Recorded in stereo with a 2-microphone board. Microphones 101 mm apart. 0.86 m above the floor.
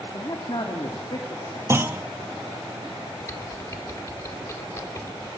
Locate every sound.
0.1 s a man speaking: 50° left (ahead or behind), 2 m
1.7 s a clunk: 25° right (ahead or behind), 0.7 m
3.2 s typing on a keyboard: 30° left (ahead or behind), 1.5 m